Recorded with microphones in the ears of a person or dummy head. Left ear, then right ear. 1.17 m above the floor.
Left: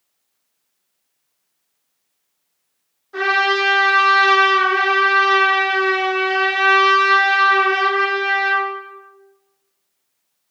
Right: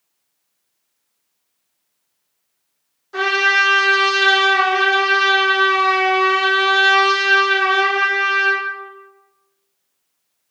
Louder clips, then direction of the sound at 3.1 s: Right 2 dB; 15° right (ahead or behind).